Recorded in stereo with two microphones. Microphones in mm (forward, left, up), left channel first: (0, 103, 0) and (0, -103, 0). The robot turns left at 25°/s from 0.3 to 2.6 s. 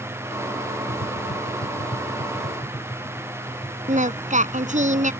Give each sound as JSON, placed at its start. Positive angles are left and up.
{"t": 0.9, "sound": "tapping", "side_deg": 65}
{"t": 3.9, "sound": "singing", "side_deg": -35}